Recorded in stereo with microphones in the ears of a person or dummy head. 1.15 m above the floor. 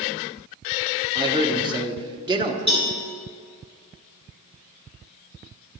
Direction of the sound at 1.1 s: 25° right (ahead or behind).